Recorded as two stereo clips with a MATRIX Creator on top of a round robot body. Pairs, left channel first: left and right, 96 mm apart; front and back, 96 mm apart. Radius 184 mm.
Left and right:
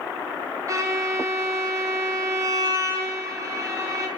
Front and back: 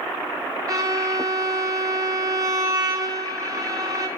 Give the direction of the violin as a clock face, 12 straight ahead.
5 o'clock.